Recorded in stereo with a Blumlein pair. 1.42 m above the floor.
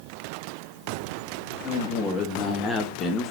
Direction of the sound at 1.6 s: 20° left.